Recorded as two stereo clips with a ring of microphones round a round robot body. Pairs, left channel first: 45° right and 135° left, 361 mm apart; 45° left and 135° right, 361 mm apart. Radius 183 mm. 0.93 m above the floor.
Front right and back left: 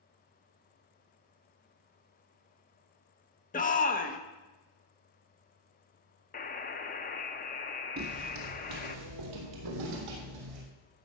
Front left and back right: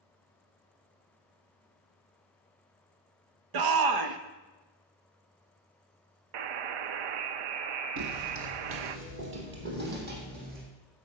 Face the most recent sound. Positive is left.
turn(degrees=160)